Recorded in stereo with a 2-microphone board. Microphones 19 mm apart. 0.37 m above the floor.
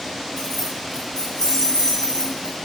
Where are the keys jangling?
20° left (ahead or behind), 3 m; by 2.5 s 50° left (ahead or behind), 3 m.